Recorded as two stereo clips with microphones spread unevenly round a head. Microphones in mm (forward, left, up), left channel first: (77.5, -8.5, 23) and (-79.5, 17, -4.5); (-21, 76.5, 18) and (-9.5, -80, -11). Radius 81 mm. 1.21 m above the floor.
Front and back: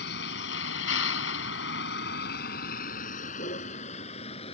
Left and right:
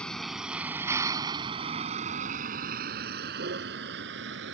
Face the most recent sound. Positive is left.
turn(degrees=-65)